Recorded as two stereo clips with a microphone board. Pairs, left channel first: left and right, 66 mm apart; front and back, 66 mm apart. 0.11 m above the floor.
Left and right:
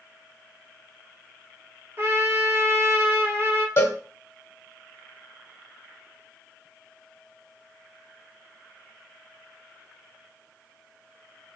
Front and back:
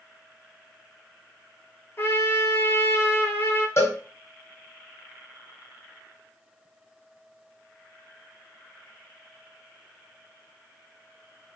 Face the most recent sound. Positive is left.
turn(degrees=45)